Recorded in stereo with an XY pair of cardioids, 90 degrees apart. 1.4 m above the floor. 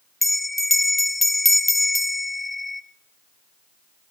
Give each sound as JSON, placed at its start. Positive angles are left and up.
{"t": 0.2, "sound": "a bell", "azimuth_deg": 20, "distance_m": 0.7}